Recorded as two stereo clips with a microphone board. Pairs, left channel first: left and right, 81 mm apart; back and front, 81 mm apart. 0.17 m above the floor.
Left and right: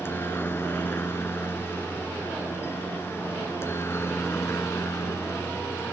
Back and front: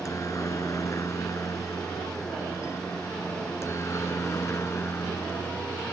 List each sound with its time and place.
0.0 s a helicopter: 145° left; by 5.9 s 135° left